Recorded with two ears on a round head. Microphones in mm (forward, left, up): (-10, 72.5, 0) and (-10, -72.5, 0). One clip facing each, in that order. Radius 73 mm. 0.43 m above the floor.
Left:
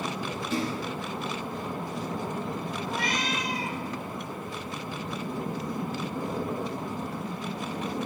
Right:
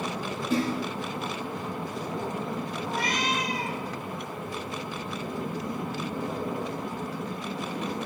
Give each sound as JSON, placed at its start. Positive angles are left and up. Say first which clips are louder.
{"t": 0.5, "sound": "a splash", "louder": "right 4 dB", "side_deg": -80, "distance_m": 7.0}
{"t": 2.9, "sound": "a cat meowing", "louder": "right 2 dB", "side_deg": -35, "distance_m": 5.5}